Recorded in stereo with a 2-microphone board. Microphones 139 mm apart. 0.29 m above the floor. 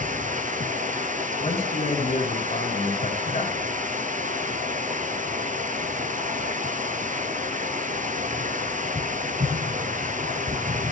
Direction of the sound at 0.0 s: 65° right (ahead or behind).